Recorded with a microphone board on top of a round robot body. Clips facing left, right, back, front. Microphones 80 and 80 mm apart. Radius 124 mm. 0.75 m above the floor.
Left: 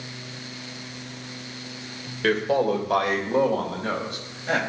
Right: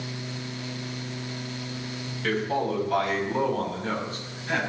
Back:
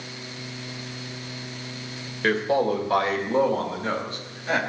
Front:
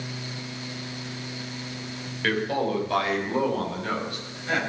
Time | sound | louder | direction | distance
2.2 | a man speaking | left 5 dB, back 4 dB | 115° left | 3 m